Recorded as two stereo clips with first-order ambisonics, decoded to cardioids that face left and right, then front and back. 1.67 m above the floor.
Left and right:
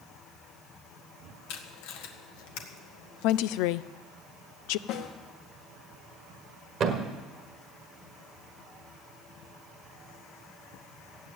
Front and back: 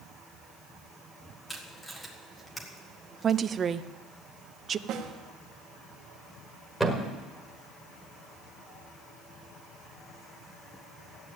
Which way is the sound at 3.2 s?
115° left.